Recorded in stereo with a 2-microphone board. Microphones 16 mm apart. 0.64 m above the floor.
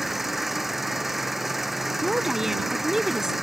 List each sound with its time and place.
0.0 s an engine running: 10° right (ahead or behind)
2.0 s a woman speaking: 30° right (ahead or behind)